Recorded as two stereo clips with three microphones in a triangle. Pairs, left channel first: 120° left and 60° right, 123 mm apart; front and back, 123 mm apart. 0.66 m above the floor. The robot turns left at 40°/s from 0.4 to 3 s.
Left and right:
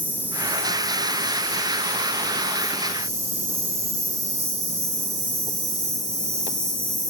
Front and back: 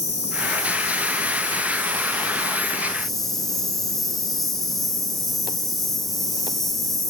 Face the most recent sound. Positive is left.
turn(degrees=-90)